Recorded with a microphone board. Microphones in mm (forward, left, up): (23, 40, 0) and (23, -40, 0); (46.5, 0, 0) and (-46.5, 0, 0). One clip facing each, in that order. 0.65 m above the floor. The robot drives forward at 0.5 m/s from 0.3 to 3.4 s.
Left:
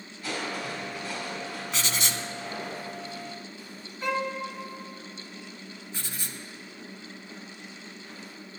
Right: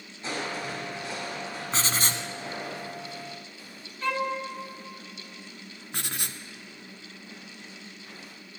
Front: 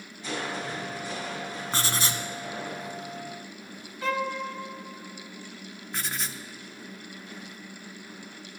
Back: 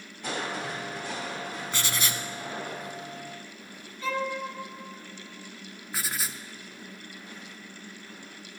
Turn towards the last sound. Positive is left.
turn(degrees=-95)